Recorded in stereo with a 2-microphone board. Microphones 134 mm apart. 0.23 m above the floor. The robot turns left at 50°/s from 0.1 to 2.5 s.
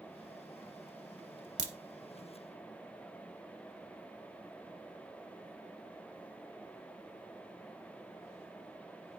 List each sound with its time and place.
1.6 s a crack: 65° right (ahead or behind), 1.0 m